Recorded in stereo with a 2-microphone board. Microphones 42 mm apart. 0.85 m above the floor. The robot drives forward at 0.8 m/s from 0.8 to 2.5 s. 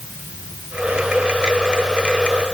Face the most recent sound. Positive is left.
No sound to turn to.